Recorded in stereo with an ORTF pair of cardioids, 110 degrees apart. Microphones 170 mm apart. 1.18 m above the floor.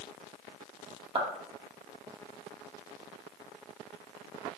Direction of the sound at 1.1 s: 35° right.